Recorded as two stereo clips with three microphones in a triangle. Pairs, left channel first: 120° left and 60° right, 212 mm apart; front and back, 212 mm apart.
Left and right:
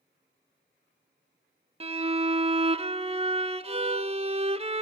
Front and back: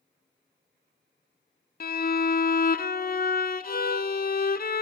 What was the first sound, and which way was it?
A violin, 15° right.